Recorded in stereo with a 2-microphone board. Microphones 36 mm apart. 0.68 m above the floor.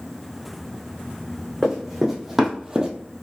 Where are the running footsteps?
Centre (ahead or behind), 1.9 m; by 2.9 s 25° right (ahead or behind), 0.8 m.